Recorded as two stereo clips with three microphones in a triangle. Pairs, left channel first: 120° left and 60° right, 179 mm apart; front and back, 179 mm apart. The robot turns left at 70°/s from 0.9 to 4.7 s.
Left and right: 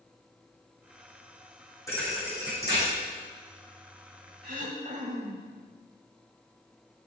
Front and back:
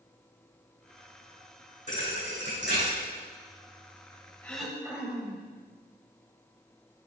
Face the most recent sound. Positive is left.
turn(degrees=-100)